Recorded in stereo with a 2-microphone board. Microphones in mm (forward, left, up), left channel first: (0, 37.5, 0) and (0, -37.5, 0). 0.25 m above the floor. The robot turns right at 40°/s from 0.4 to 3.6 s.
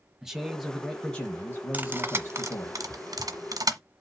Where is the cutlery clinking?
20° right (ahead or behind), 1.2 m; by 3.8 s 60° right (ahead or behind), 1.2 m.